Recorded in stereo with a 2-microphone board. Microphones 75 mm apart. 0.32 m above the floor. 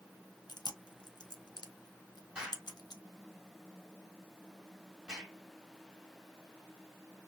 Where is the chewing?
70° left (ahead or behind), 0.9 m.